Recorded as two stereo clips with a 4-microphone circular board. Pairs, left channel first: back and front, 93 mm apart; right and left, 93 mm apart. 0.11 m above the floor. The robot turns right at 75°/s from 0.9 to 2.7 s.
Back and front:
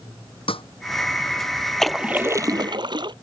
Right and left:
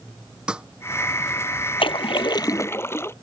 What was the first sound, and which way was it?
A snare drum, 170° left.